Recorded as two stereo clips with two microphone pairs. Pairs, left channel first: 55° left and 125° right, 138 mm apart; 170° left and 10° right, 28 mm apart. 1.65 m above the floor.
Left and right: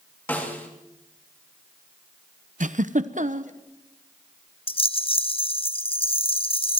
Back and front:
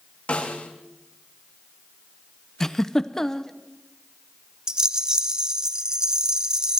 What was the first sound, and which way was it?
A snare drum, 135° left.